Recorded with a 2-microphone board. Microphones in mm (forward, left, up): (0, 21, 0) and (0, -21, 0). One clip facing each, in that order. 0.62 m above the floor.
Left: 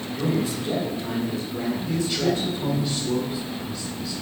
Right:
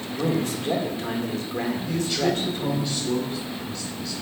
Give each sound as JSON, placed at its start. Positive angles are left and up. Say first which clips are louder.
{"t": 0.1, "sound": "a man speaking", "louder": "even", "side_deg": -60, "distance_m": 1.8}
{"t": 1.9, "sound": "a man speaking", "louder": "left 1 dB", "side_deg": 0, "distance_m": 3.0}